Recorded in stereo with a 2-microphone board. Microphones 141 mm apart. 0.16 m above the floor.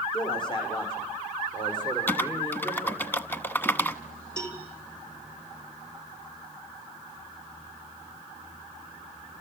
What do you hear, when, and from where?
0.1 s a man speaking: 35° left (ahead or behind), 7 m
2.1 s typing on a keyboard: 15° left (ahead or behind), 0.9 m
4.4 s a cowbell: 5° left (ahead or behind), 2.5 m